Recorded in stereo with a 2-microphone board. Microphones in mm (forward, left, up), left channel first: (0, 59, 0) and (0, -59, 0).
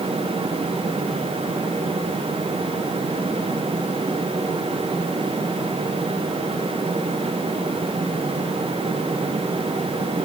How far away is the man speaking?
I don't hear a man speaking.